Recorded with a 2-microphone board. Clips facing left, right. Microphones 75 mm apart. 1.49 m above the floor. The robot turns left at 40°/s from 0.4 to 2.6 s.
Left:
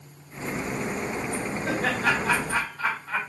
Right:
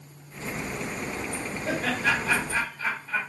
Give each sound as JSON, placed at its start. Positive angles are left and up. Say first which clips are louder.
{"t": 1.6, "sound": "laughter", "louder": "left 1 dB", "side_deg": 55, "distance_m": 1.4}